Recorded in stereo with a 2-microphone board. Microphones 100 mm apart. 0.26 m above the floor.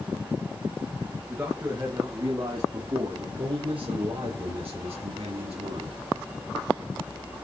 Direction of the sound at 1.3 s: 25° right (ahead or behind).